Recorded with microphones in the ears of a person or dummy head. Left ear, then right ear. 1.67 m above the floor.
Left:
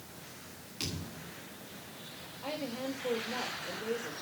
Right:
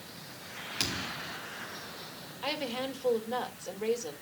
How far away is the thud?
About 2.0 m.